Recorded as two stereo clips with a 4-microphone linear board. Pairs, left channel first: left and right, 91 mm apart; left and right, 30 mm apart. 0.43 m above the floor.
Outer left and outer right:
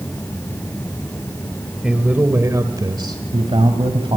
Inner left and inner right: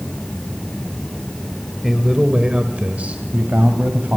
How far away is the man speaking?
About 1.7 m.